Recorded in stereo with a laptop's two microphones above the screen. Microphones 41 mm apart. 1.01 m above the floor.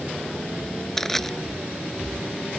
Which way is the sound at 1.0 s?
10° left (ahead or behind).